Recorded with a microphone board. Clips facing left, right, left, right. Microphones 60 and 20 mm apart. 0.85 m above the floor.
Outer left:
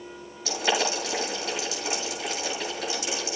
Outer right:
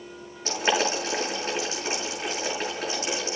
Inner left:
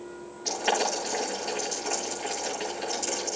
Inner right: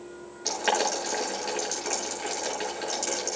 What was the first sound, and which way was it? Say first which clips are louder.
Boiling: outer right 2 dB, inner right 1 dB; 40° right (ahead or behind).